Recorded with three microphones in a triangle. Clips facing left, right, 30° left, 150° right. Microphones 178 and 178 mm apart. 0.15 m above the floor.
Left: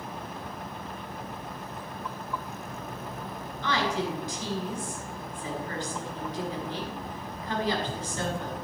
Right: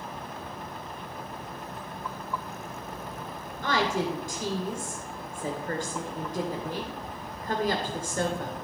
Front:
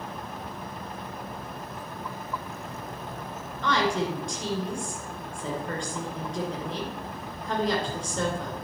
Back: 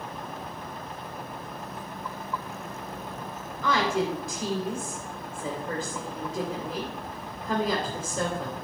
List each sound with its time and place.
3.6 s a woman speaking: 65° right, 2.5 m